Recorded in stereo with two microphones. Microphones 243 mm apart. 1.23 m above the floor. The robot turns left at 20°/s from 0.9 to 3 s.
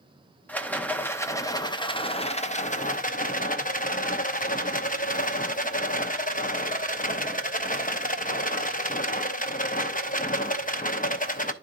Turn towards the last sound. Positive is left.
turn(degrees=130)